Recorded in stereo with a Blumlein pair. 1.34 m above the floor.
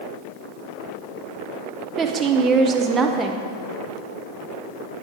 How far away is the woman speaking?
About 0.8 m.